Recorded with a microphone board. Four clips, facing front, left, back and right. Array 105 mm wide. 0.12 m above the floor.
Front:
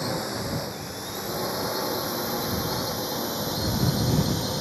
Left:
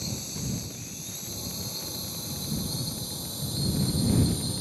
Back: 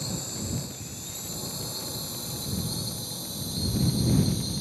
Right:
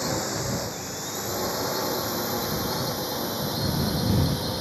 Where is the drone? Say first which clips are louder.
Right 9 dB, front 7 dB; 55° right; by 4.6 s 40° right.